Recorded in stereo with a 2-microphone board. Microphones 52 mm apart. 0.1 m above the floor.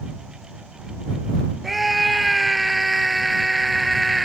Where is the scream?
Centre (ahead or behind).